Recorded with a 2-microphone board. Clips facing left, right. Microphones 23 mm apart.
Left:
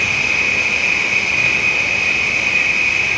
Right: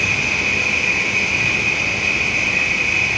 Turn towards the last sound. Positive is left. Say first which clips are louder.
# left 2 dB
turn(degrees=35)  # may be behind; listen again after turning